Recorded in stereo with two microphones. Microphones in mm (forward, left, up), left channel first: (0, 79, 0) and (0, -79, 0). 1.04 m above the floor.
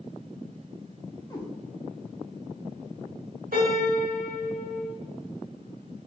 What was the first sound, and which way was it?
A cat meowing, 25° left (ahead or behind).